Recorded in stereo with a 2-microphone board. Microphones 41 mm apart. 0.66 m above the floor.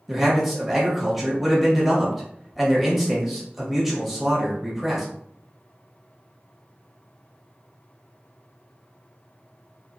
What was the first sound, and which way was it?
A man speaking, 5° right (ahead or behind).